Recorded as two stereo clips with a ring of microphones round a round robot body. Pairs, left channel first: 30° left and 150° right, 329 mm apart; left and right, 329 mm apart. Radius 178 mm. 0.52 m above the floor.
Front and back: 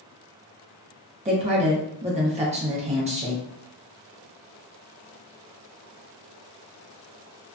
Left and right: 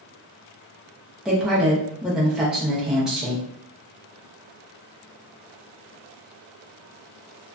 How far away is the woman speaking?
About 0.7 m.